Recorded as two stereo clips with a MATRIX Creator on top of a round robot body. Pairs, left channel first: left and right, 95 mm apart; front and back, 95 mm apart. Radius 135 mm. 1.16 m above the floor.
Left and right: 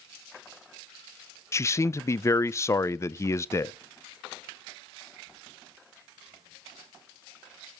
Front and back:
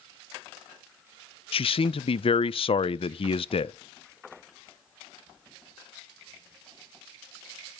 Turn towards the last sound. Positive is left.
turn(degrees=30)